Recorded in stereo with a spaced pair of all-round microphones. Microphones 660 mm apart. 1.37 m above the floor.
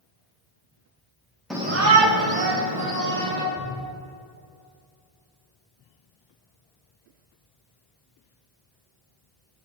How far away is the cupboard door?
About 2.5 m.